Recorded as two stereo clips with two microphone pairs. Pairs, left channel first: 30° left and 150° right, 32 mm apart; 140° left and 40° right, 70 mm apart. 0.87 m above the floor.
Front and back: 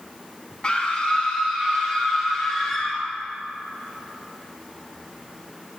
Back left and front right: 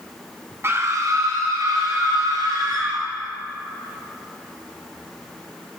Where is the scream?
10° right, 1.0 m; by 3.0 s 45° right, 3 m.